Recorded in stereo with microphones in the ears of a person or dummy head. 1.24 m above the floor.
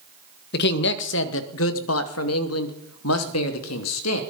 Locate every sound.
0.5 s a man speaking: 55° left (ahead or behind), 1.8 m; by 4.2 s 75° left (ahead or behind), 3 m